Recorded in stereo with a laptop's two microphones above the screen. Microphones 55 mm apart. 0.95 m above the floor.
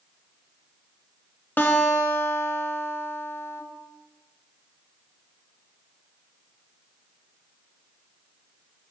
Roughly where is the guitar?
Left.